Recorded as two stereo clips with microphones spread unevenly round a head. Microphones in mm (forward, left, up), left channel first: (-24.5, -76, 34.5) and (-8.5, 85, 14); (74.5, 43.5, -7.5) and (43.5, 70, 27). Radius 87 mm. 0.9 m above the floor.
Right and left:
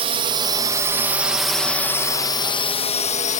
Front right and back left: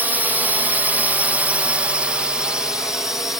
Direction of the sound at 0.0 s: 55° left.